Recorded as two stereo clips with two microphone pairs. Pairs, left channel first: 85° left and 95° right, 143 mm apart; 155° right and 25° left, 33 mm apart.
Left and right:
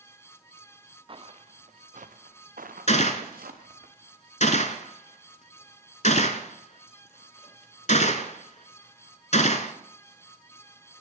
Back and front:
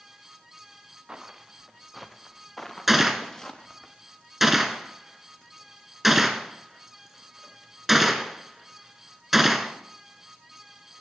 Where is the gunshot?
105° left, 1.1 m.